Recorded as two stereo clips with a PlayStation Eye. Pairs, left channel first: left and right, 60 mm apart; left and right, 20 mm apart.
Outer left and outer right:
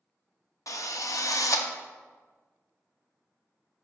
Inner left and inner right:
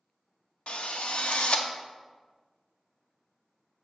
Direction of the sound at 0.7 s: 70° left (ahead or behind).